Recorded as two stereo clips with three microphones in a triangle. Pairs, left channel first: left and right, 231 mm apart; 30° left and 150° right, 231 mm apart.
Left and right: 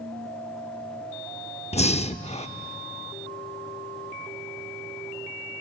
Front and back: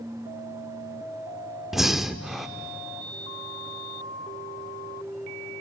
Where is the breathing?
120° left, 0.5 m.